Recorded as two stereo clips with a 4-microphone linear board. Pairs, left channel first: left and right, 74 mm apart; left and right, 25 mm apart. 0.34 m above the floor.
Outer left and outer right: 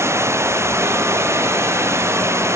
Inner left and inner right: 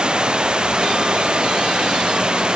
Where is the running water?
40° right (ahead or behind).